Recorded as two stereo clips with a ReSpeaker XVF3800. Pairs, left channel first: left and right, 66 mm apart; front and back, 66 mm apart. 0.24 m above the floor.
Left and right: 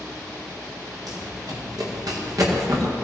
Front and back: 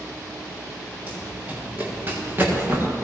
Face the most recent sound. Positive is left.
turn(degrees=-120)